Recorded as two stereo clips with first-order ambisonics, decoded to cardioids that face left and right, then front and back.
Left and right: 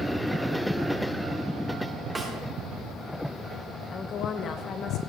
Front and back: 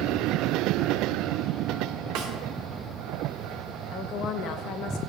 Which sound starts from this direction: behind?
A snare drum, at 2.1 s.